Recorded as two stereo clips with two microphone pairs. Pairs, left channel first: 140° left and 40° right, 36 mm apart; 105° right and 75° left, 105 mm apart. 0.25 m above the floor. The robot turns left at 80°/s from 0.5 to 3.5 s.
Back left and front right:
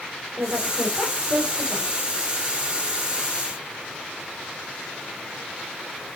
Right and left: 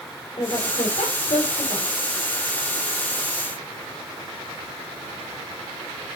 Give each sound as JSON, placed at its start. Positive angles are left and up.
{"t": 0.4, "sound": "a woman speaking", "azimuth_deg": -65, "distance_m": 9.5}